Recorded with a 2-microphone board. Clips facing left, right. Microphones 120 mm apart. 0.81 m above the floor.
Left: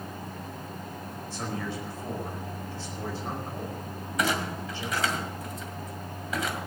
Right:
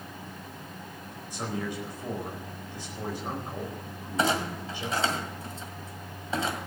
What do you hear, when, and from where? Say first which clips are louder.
1.3 s a man speaking: right 1 dB; 15° right (ahead or behind), 4.5 m
4.2 s a clunk: right 2 dB; 30° right (ahead or behind), 2 m